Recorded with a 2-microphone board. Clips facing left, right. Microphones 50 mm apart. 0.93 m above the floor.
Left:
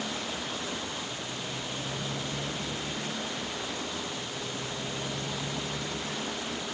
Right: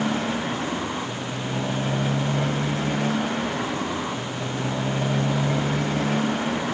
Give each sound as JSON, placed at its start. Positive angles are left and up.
{"t": 0.0, "sound": "a motorcycle", "side_deg": -45}